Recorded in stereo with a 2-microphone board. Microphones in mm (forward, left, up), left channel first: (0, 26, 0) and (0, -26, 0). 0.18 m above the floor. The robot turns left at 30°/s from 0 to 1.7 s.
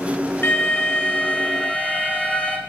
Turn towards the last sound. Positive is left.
turn(degrees=35)